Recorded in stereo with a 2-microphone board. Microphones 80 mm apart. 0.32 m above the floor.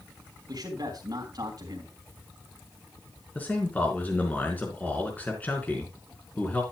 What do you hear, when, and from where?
0.5 s a man speaking: 55° right (ahead or behind), 3 m
3.4 s a man speaking: 20° left (ahead or behind), 4 m